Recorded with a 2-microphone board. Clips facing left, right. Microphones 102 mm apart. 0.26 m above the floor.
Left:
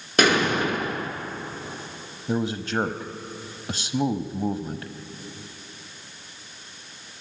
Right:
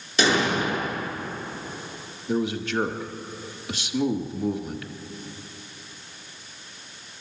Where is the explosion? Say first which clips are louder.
Left 2 dB; 55° left (ahead or behind), 4.5 m.